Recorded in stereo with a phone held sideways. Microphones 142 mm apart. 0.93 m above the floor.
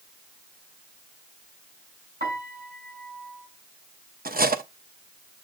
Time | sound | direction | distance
2.2 | a piano | 85° right | 7.5 m
4.2 | cutlery clinking | 75° right (ahead or behind) | 0.7 m